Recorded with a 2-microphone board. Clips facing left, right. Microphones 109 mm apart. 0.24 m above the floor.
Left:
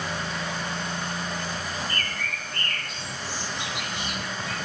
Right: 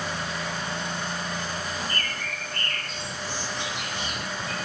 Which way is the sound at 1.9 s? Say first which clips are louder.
Even; 40° right (ahead or behind).